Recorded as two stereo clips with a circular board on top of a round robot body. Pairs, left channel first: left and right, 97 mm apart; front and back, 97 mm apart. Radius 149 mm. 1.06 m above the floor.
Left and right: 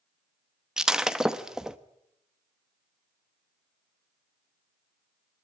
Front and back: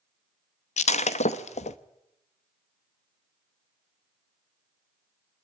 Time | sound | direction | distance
0.8 | breaking glass | 5° right | 0.8 m